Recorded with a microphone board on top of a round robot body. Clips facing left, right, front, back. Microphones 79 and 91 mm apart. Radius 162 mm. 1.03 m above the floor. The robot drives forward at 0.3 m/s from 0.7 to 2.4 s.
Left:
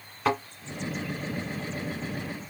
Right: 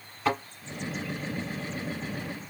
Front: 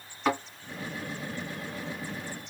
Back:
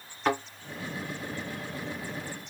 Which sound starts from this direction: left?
A thud, at 0.2 s.